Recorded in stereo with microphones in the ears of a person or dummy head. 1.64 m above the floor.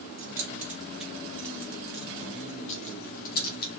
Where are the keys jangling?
20° right (ahead or behind), 1.6 m; by 3.7 s 50° left (ahead or behind), 1.6 m.